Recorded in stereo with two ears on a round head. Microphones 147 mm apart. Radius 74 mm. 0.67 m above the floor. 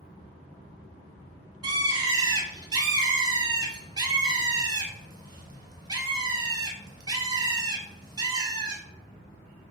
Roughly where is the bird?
Right.